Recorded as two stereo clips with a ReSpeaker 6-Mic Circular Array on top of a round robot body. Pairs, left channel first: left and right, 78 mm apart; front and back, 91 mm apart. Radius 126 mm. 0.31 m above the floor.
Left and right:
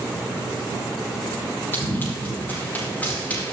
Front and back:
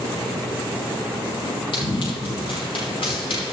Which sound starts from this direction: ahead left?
Running footsteps, at 1.7 s.